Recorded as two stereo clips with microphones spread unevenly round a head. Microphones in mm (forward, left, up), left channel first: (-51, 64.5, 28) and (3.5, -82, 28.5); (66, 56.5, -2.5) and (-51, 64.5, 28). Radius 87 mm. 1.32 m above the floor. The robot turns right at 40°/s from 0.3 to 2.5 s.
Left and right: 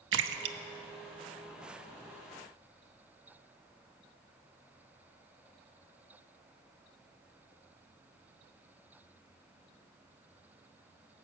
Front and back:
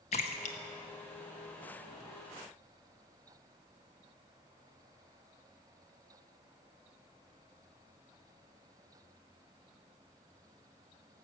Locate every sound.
0.1 s a splash: 55° right, 0.7 m; by 2.0 s 10° left, 0.7 m